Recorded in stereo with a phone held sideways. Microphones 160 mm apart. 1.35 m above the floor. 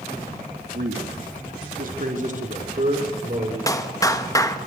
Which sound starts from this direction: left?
A clap, at 3.7 s.